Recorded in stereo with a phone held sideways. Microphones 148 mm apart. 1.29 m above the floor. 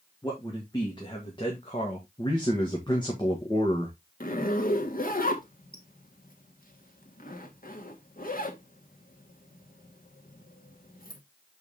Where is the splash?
No splash in this recording.